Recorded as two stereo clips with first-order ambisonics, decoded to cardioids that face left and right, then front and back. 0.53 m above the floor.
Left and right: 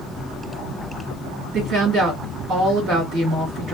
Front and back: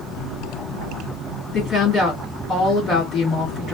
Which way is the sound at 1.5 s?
45° right.